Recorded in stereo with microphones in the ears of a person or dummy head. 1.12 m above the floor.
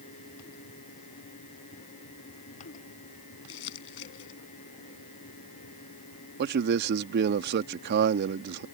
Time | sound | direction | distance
3.5 | crumpling | 75° left (ahead or behind) | ?
6.4 | a man speaking | 60° right (ahead or behind) | ?